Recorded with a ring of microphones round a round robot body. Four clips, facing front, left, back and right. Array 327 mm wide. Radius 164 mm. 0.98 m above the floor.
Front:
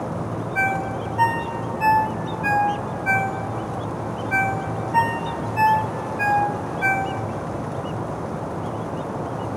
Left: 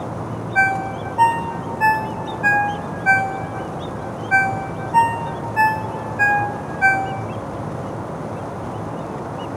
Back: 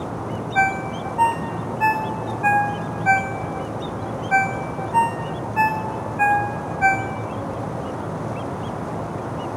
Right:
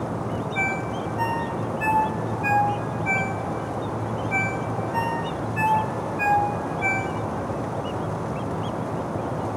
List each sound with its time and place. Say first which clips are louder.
0.6 s a ringtone: left 7 dB, back 3 dB; 115° left, 2.5 m